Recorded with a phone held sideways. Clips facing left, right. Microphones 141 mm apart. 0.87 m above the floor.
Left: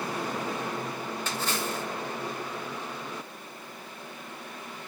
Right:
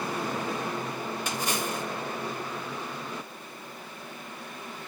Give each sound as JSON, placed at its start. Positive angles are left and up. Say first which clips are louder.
{"t": 1.3, "sound": "a splash", "louder": "even", "side_deg": -15, "distance_m": 1.2}